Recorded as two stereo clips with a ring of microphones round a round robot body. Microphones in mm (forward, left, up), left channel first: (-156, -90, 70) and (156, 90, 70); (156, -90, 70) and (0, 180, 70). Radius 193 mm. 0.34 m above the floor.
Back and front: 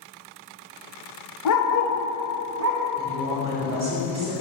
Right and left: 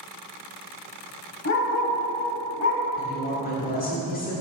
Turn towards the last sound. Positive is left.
turn(degrees=-30)